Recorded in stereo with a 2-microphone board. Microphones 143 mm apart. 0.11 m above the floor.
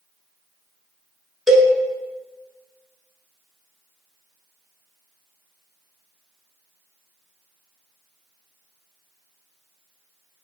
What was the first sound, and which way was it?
A cowbell, centre (ahead or behind).